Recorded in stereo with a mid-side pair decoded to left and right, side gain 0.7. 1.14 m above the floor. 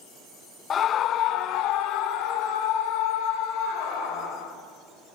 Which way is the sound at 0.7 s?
35° left.